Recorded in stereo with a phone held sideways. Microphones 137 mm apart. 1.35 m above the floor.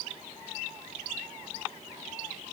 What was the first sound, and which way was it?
Only background noise.